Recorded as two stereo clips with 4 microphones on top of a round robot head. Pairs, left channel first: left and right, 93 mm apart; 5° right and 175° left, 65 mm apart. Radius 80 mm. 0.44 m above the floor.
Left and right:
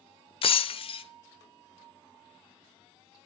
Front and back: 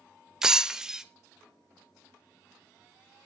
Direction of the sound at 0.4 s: 95° left.